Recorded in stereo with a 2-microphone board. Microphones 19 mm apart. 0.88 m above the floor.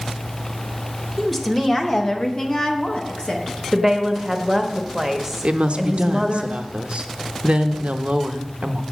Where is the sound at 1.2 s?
10° left (ahead or behind), 1.1 m; by 3.6 s 50° left (ahead or behind), 1.2 m.